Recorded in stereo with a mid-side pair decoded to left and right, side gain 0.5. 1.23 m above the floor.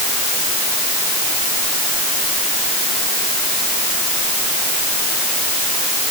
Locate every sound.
Only background noise.